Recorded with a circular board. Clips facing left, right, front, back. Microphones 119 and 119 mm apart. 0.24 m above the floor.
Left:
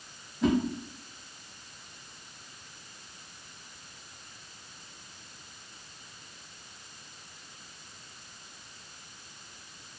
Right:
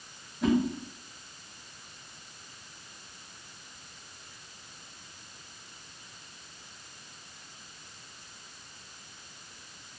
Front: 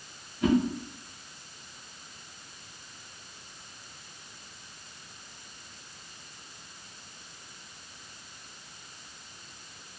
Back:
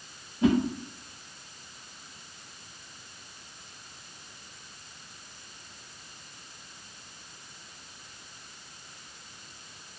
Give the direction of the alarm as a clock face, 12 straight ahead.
No alarm in this recording.